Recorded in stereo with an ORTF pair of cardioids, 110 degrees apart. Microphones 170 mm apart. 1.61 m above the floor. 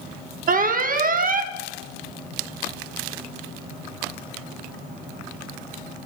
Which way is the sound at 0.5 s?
60° right.